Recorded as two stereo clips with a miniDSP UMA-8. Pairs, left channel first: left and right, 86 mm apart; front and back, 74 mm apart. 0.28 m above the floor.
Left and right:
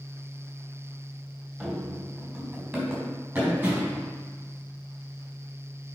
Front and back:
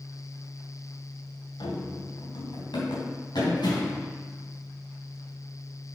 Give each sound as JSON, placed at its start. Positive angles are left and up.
{"t": 1.6, "sound": "running footsteps", "azimuth_deg": -15, "distance_m": 2.0}